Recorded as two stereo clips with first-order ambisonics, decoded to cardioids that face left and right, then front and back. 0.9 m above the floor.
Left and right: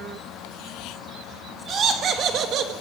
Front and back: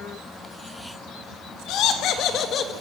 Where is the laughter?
30° right, 2 m; by 2.7 s 55° right, 1.4 m.